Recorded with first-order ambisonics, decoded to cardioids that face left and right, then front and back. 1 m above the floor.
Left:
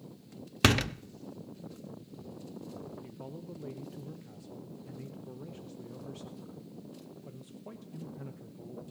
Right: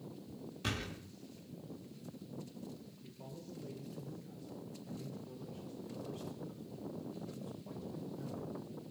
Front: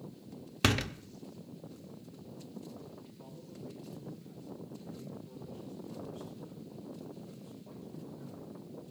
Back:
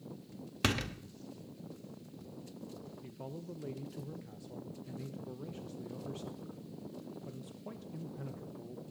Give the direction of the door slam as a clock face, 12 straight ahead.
9 o'clock.